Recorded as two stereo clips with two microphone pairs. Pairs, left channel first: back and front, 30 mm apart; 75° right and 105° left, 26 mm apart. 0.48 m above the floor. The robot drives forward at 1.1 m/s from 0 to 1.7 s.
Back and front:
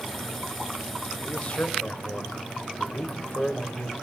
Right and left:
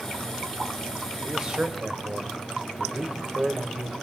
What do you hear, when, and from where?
1.2 s a man speaking: 150° left, 2.0 m; by 3.9 s 155° left, 2.5 m